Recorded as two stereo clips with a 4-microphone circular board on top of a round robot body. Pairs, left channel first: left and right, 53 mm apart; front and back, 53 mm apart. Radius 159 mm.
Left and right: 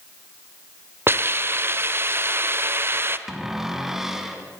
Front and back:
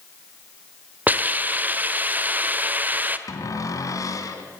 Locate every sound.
1.1 s a hiss: 125° right, 1.8 m
3.3 s a cupboard door: 5° right, 3 m